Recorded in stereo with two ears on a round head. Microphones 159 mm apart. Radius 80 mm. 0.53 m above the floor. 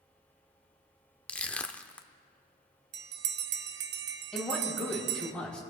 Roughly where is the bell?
Right.